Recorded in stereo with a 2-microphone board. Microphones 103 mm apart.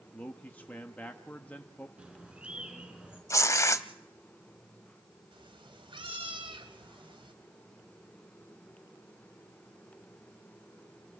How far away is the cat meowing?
About 1.6 m.